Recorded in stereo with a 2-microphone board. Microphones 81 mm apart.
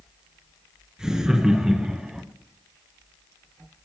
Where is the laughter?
10° right (ahead or behind), 2.5 m; by 2.2 s 5° right (ahead or behind), 1.1 m.